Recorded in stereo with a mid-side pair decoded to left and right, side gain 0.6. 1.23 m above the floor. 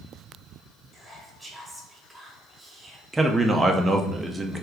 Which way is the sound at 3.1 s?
15° right.